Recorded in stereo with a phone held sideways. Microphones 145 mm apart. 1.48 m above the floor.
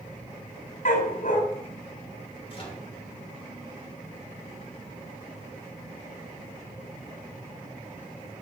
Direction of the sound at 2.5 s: 40° left (ahead or behind).